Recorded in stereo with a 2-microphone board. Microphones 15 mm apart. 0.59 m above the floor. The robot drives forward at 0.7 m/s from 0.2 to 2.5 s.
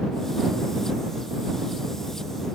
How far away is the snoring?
I don't hear snoring.